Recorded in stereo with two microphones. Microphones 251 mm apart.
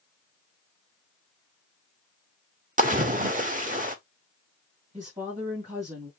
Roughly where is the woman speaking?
Right.